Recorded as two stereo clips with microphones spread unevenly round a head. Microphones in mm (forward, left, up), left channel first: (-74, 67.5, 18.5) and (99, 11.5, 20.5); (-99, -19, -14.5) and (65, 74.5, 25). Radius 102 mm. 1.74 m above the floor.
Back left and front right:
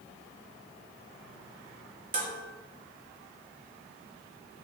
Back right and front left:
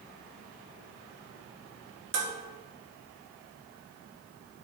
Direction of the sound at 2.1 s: 25° left.